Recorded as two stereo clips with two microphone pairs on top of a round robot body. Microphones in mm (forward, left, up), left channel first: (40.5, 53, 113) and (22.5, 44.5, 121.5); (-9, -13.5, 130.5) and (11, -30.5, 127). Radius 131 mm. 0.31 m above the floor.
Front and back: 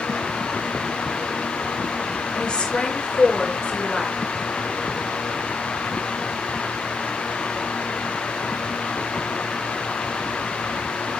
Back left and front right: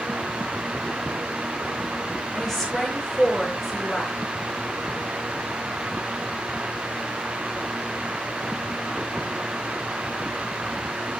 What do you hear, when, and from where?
2.4 s a woman speaking: 50° left, 6.5 m